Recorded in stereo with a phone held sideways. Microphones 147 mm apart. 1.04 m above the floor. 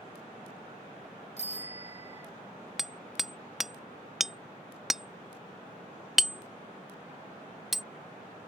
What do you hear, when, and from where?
1.4 s a bicycle bell: 50° left (ahead or behind)
2.8 s hammering: centre (ahead or behind)